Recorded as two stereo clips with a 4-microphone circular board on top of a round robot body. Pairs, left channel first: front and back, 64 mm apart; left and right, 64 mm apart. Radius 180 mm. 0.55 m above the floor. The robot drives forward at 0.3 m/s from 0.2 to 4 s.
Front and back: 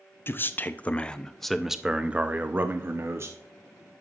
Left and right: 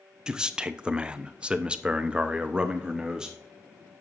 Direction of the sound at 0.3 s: 20° right.